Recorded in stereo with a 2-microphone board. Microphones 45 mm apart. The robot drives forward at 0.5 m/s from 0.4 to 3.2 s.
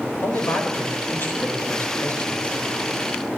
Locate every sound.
0.2 s a man speaking: 55° left (ahead or behind), 4 m; by 2.6 s 45° left (ahead or behind), 4.5 m